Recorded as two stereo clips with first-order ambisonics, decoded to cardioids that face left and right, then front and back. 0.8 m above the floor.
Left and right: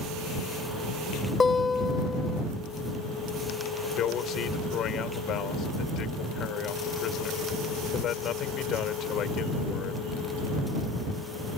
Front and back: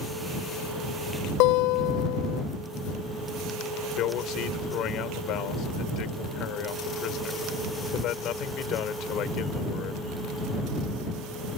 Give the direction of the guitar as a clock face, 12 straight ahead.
12 o'clock.